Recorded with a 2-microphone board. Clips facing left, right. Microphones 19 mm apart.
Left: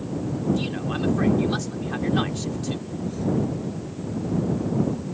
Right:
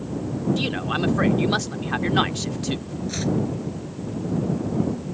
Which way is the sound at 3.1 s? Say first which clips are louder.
Right 1 dB; 65° right (ahead or behind).